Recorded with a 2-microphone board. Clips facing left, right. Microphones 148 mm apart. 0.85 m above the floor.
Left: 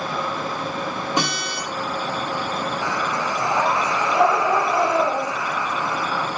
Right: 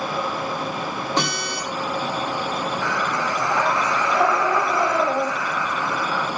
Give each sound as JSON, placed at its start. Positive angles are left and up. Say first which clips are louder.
{"t": 1.2, "sound": "a guitar", "louder": "right 1 dB", "side_deg": 15, "distance_m": 2.5}
{"t": 2.8, "sound": "breathing", "louder": "even", "side_deg": 15, "distance_m": 0.9}